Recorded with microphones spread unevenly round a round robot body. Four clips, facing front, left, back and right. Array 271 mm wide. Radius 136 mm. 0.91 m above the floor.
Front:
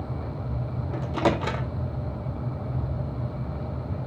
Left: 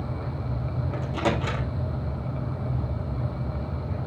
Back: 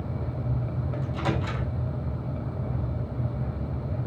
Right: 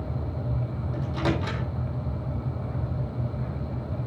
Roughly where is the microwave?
Ahead.